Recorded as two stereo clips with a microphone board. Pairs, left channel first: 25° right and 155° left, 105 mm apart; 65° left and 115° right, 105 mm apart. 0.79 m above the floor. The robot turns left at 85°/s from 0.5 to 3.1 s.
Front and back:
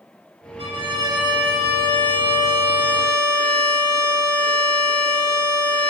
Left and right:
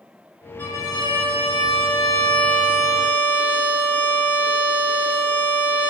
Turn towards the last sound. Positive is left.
turn(degrees=-70)